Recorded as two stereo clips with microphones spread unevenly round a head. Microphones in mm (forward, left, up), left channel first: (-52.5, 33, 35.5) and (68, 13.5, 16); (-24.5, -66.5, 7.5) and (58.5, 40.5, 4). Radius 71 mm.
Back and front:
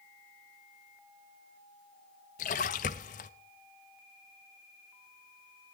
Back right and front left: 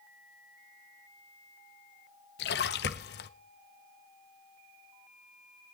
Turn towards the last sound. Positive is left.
turn(degrees=-150)